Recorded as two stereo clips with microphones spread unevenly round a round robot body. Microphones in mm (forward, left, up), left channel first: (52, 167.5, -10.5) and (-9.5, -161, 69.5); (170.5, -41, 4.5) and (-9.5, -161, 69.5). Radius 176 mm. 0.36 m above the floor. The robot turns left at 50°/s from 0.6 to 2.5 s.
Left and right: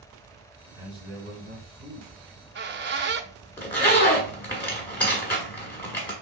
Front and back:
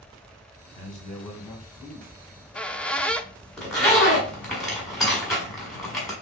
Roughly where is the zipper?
Ahead left.